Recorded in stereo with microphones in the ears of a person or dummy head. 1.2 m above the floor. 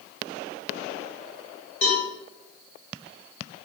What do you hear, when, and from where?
1.8 s a cowbell: 35° left (ahead or behind), 0.7 m